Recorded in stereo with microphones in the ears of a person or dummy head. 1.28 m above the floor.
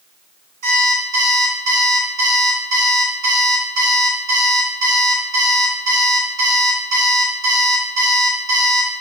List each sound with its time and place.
0.6 s an alarm clock: 45° right (ahead or behind), 2.5 m